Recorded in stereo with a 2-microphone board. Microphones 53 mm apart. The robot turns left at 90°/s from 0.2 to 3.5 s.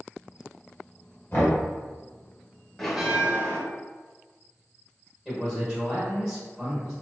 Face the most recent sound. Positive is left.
turn(degrees=-5)  # may be behind; listen again after turning